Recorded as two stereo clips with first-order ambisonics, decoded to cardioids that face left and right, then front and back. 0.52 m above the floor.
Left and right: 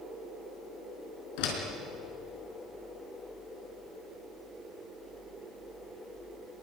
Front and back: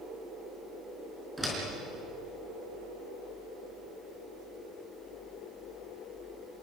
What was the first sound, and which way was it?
A door slam, 95° left.